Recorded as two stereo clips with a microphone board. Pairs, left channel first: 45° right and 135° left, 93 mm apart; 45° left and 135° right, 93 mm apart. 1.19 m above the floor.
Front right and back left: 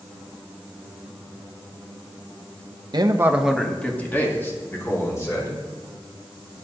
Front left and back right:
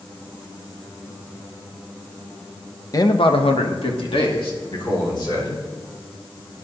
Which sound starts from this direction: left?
A man speaking, at 2.9 s.